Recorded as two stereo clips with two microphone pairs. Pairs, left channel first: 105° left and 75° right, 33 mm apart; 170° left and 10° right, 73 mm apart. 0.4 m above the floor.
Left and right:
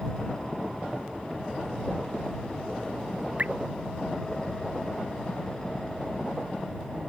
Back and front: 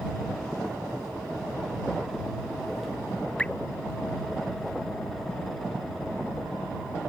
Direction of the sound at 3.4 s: 115° right.